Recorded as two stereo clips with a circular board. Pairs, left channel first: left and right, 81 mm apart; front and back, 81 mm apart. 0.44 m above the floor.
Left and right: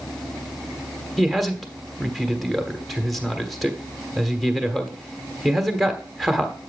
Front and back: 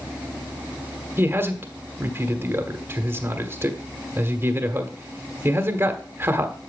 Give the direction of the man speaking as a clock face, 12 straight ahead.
6 o'clock.